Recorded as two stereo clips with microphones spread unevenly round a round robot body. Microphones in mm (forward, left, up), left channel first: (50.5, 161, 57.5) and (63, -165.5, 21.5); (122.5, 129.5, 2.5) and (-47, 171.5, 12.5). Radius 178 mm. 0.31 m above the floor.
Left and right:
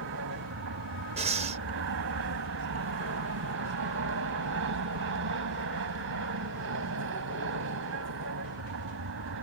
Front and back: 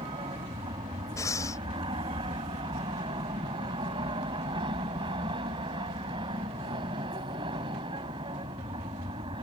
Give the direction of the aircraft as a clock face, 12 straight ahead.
4 o'clock.